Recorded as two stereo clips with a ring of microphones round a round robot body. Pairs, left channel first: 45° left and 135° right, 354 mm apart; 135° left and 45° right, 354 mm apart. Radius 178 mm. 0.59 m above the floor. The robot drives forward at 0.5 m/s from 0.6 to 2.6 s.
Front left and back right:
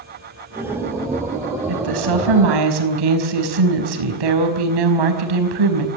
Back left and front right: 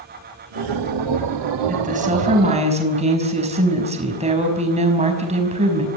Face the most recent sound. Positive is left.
turn(degrees=-115)